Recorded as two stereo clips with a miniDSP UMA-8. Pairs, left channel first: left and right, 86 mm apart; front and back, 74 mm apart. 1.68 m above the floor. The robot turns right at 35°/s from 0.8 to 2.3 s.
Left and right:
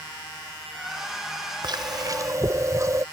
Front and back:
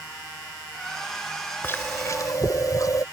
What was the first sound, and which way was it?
Chewing, 60° right.